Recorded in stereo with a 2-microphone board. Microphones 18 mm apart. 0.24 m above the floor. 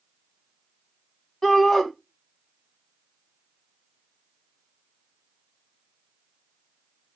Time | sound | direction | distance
1.4 | a shout | 30° left (ahead or behind) | 2 m